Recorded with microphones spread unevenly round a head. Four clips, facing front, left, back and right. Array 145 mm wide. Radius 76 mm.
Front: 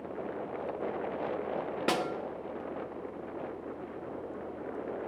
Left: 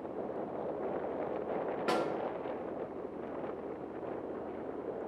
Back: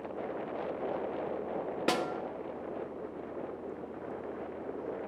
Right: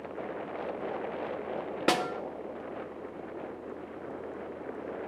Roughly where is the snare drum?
Behind right.